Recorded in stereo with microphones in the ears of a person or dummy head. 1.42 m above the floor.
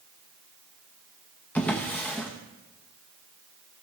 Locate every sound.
1.6 s a drawer: 10° left (ahead or behind), 0.9 m